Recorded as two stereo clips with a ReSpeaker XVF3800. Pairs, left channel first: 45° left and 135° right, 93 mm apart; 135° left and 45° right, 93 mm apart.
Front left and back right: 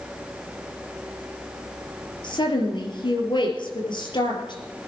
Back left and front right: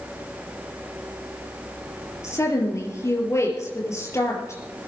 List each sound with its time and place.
2.2 s a woman speaking: 75° left, 4.5 m